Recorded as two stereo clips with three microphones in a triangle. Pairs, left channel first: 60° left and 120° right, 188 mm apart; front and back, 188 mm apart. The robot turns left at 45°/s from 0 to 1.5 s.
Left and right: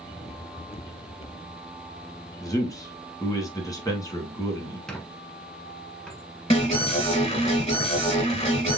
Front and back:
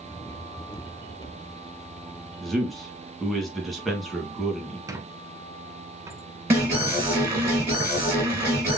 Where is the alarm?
105° left, 2.5 m.